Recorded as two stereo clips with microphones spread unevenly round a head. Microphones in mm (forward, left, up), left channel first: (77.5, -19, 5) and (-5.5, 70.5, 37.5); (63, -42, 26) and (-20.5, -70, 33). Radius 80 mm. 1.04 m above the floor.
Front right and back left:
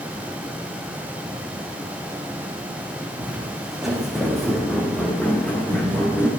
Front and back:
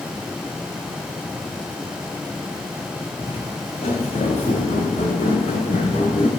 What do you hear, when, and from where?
3.2 s footsteps: 60° left, 3 m; by 6.3 s 25° left, 4.5 m